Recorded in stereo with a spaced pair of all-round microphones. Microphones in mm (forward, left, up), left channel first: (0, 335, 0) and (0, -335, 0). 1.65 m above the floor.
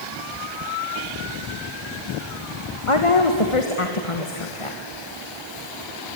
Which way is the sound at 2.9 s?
50° left (ahead or behind).